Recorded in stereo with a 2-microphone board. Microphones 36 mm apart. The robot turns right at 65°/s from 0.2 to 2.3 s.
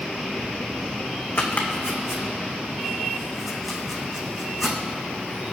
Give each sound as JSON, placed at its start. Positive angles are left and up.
{"t": 1.4, "sound": "chopping", "side_deg": 55, "distance_m": 1.7}